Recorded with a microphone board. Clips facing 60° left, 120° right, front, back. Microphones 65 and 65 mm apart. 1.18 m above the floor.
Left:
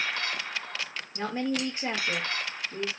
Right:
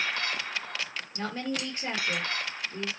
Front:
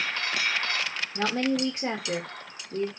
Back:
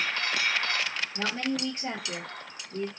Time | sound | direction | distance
1.1 | a woman speaking | 10° right | 1.3 m